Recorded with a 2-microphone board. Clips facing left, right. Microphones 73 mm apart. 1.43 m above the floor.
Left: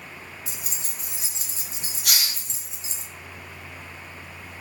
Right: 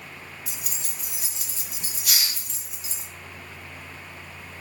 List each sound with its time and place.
0.5 s keys jangling: 25° left (ahead or behind), 0.6 m
2.0 s a hiss: 65° left (ahead or behind), 0.8 m